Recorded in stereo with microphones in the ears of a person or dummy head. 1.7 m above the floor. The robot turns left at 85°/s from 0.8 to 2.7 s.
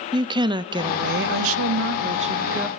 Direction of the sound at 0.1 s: 25° right.